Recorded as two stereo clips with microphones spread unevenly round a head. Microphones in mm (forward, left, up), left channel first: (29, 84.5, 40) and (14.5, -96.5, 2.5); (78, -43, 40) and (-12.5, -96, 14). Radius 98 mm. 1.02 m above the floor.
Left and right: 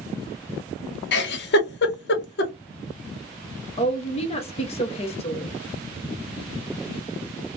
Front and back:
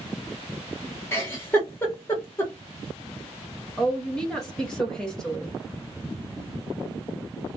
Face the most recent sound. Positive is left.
turn(degrees=130)